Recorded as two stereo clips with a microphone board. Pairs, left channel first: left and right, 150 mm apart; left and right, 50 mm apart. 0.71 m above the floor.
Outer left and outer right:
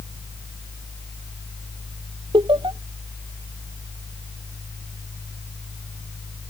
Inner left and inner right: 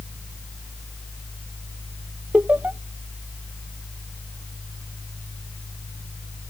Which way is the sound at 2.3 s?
30° right (ahead or behind).